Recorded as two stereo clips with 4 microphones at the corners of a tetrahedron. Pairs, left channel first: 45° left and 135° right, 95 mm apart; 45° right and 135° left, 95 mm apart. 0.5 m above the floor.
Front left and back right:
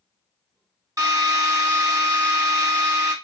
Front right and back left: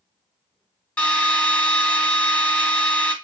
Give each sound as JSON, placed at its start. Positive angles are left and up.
{"t": 1.0, "sound": "a drill", "azimuth_deg": -120, "distance_m": 1.8}